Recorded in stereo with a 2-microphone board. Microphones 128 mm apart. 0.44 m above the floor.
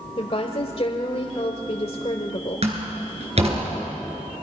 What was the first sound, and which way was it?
A woman speaking, 50° left (ahead or behind).